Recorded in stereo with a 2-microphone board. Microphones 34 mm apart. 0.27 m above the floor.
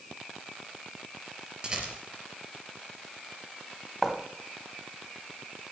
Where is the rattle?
25° right (ahead or behind), 4 m.